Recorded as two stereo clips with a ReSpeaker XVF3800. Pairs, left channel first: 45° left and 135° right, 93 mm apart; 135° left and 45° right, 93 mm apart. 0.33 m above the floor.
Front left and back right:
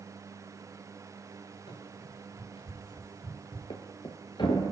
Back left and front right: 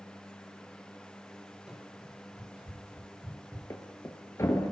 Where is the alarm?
I don't hear an alarm.